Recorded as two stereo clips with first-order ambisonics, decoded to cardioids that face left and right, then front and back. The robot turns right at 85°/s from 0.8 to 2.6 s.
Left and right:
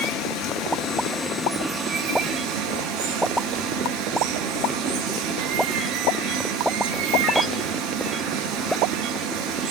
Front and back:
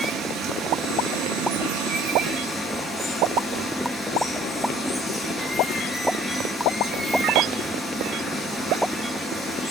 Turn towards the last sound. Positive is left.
turn(degrees=-90)